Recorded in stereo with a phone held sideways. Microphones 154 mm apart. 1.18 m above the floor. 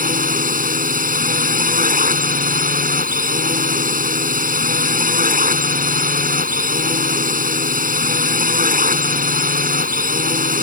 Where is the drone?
65° right (ahead or behind).